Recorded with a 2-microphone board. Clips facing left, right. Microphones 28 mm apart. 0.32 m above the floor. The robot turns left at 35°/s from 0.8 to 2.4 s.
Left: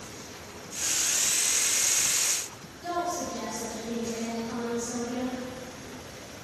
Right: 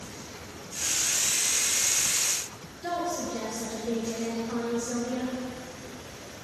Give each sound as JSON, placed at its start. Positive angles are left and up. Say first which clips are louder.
{"t": 2.8, "sound": "a woman speaking", "louder": "even", "side_deg": -70, "distance_m": 3.5}